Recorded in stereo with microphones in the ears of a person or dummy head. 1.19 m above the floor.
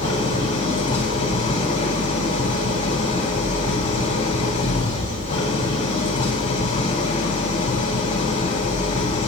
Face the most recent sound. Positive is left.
turn(degrees=40)  # may be behind; listen again after turning